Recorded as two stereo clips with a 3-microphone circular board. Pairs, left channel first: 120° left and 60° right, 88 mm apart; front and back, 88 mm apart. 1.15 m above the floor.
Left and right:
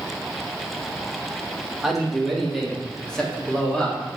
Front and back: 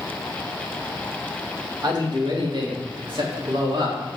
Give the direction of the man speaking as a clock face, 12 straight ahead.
5 o'clock.